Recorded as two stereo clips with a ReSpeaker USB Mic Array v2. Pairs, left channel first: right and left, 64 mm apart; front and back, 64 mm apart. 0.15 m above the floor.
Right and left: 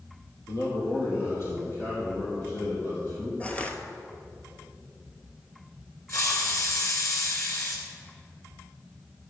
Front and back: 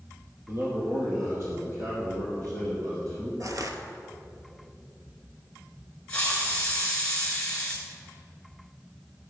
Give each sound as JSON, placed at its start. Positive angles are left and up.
{"t": 0.5, "sound": "a man speaking", "azimuth_deg": -130, "distance_m": 3.5}
{"t": 3.4, "sound": "crushing", "azimuth_deg": -160, "distance_m": 1.0}
{"t": 6.1, "sound": "a hiss", "azimuth_deg": -70, "distance_m": 2.5}